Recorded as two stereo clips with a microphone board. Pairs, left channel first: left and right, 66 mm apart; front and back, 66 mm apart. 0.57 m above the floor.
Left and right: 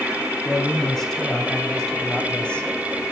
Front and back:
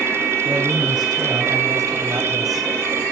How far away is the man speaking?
About 5.5 m.